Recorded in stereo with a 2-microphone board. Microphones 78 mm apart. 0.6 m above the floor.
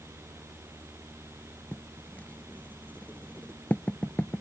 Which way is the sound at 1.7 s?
20° left (ahead or behind).